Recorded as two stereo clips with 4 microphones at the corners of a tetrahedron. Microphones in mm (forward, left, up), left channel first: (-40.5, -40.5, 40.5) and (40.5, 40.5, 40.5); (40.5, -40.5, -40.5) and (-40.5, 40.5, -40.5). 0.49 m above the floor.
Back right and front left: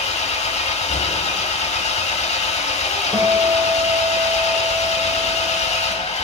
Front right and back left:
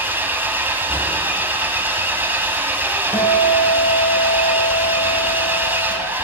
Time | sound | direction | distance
0.0 | an engine running | 150° right | 0.9 m
3.1 | a guitar | 20° right | 0.7 m